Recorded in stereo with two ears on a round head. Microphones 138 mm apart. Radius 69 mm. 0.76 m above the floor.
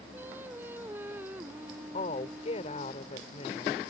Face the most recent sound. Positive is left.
turn(degrees=45)  # may be behind; listen again after turning